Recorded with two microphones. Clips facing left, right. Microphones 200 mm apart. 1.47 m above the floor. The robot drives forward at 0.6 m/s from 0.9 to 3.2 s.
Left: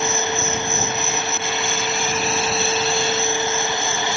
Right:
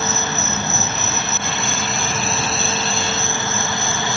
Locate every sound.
0.0 s an insect: 85° right